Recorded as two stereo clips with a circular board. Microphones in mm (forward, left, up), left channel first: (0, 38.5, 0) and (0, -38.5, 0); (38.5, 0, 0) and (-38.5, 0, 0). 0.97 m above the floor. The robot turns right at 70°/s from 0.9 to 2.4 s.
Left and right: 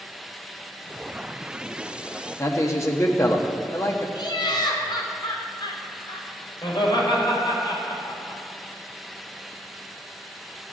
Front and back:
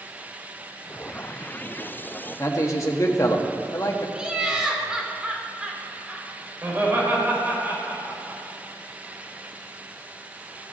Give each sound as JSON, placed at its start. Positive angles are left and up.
{"t": 2.4, "sound": "a man speaking", "azimuth_deg": 45, "distance_m": 1.6}
{"t": 4.2, "sound": "laughter", "azimuth_deg": 100, "distance_m": 3.0}
{"t": 6.6, "sound": "laughter", "azimuth_deg": 115, "distance_m": 4.5}